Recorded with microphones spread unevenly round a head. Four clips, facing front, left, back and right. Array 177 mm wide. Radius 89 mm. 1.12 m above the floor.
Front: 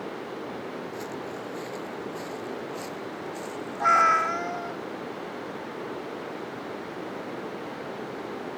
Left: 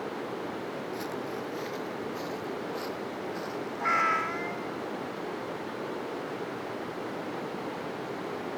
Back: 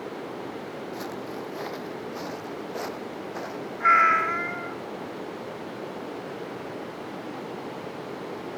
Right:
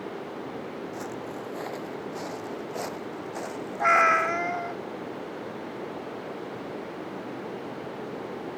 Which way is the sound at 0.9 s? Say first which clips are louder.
Even, back 1 dB; 145° right.